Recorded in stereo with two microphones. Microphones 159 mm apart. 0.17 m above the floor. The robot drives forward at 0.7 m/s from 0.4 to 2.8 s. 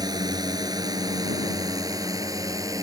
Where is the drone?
25° right (ahead or behind); by 2.8 s 20° right (ahead or behind).